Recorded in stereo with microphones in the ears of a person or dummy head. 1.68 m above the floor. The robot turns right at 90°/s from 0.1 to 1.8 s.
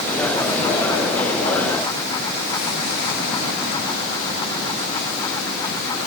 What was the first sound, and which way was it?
Only background noise.